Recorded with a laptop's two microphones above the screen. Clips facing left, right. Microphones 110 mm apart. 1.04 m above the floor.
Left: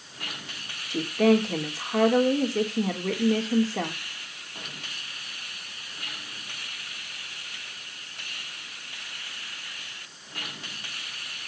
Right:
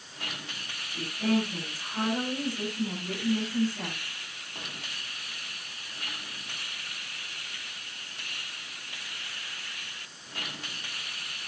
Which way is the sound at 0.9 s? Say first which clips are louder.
Left 7 dB; 75° left (ahead or behind).